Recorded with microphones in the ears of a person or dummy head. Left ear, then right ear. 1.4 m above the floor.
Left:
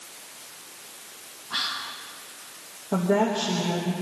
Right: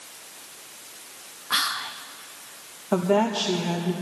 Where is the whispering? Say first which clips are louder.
Right 4 dB; 60° right (ahead or behind), 0.7 m.